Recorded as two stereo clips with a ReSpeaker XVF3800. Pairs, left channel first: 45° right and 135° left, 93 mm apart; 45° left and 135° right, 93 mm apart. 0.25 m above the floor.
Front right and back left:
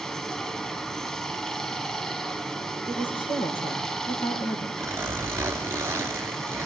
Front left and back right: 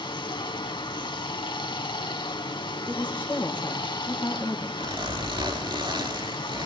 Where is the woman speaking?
30° right, 5 m.